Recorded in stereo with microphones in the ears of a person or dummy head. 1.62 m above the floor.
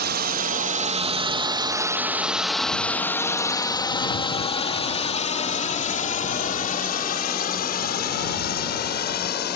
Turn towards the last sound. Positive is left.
turn(degrees=55)  # may be behind; listen again after turning